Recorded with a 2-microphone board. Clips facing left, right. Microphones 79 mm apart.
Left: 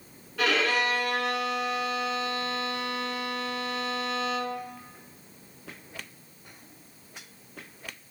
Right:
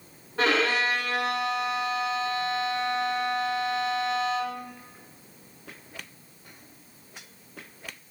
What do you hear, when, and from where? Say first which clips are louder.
0.4 s a violin: right 2 dB; 35° right (ahead or behind), 0.5 m